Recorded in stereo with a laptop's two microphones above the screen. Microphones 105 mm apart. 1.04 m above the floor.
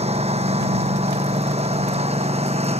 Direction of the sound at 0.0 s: 85° right.